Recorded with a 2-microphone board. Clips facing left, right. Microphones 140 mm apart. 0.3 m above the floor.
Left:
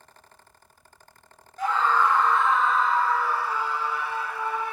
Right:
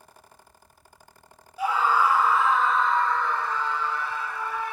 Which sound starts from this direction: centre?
A scream, at 1.6 s.